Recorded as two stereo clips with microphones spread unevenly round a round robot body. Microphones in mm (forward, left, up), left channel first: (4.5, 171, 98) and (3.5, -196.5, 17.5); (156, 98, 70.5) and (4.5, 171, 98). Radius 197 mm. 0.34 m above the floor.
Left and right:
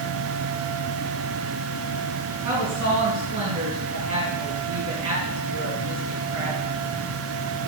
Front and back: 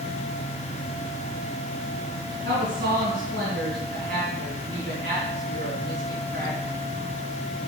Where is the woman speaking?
155° right, 3.5 m.